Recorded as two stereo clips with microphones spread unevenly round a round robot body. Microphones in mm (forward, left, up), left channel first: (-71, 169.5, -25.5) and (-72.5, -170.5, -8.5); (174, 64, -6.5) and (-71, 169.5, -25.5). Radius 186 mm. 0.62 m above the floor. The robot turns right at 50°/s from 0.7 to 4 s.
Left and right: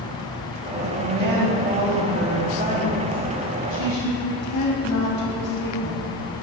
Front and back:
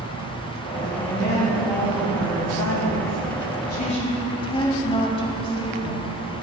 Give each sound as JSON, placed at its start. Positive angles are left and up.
{"t": 0.8, "sound": "a woman speaking", "azimuth_deg": -115, "distance_m": 3.5}